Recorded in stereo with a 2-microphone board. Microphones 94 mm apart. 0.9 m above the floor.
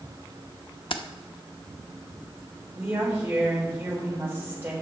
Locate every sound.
0.9 s keys jangling: 70° left (ahead or behind), 0.7 m
2.8 s a woman speaking: 20° right (ahead or behind), 4 m